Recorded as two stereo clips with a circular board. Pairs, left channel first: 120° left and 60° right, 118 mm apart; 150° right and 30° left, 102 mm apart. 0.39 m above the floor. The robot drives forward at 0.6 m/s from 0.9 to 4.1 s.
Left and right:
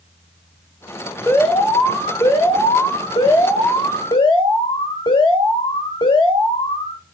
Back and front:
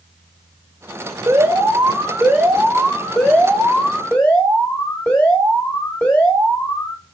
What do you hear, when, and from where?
1.3 s an alarm: 60° left, 1.6 m; by 7.0 s 145° left, 1.9 m